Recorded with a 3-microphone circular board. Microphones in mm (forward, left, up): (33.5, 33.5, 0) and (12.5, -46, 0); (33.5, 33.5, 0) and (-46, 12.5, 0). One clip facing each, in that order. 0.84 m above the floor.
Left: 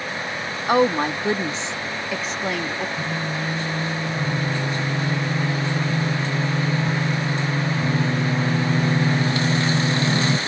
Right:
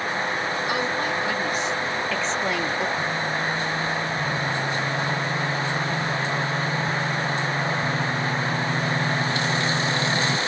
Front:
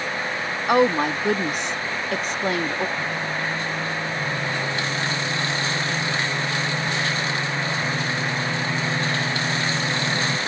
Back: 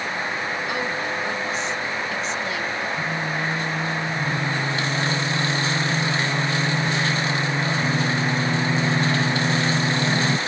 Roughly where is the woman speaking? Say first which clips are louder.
Left 11 dB, front 7 dB; ahead left.